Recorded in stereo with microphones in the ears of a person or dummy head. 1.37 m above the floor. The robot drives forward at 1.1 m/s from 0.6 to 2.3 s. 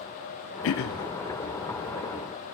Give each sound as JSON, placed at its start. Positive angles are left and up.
{"t": 0.6, "sound": "throat clearing", "side_deg": 75, "distance_m": 0.5}